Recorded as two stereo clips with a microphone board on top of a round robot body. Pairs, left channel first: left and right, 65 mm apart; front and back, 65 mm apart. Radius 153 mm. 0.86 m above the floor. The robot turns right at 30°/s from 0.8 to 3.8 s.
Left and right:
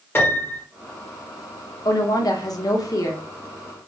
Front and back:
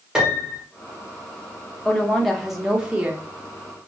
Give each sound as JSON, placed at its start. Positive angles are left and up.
{"t": 0.1, "sound": "a piano", "azimuth_deg": 110, "distance_m": 1.0}
{"t": 1.9, "sound": "a woman speaking", "azimuth_deg": 75, "distance_m": 0.8}